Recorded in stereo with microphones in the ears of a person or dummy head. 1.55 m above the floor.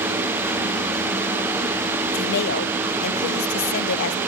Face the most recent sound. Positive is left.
turn(degrees=55)  # may be behind; listen again after turning